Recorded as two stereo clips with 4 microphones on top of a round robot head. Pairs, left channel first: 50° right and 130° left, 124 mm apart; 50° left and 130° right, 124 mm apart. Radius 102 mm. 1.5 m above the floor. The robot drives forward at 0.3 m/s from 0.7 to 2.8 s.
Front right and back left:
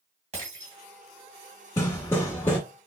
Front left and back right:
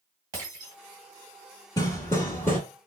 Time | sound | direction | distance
0.3 | breaking glass | 165° left | 2.0 m
1.8 | hammering | straight ahead | 1.1 m